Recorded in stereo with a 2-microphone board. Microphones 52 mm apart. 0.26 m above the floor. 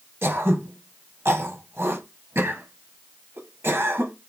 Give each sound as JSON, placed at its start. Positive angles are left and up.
{"t": 0.2, "sound": "throat clearing", "side_deg": -50, "distance_m": 0.8}